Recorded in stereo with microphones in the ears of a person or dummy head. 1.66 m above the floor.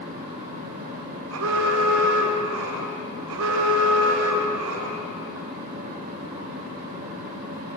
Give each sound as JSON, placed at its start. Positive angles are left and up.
{"t": 0.0, "sound": "a fan", "side_deg": -40, "distance_m": 7.0}
{"t": 1.3, "sound": "an alarm", "side_deg": -80, "distance_m": 4.0}